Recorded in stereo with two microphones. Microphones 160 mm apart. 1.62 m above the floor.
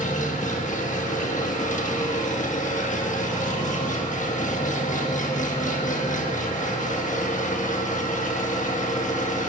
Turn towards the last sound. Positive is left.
turn(degrees=50)  # may be behind; listen again after turning